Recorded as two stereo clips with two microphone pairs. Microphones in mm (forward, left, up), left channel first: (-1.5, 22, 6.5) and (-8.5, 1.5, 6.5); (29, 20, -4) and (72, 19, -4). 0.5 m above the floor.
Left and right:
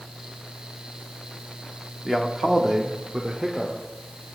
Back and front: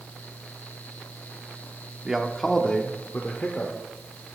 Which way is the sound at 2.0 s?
20° right.